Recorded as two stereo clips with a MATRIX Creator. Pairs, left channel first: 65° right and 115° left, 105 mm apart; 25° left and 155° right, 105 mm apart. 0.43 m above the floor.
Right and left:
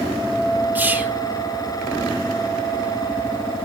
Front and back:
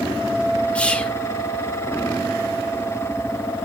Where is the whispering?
80° left, 0.8 m.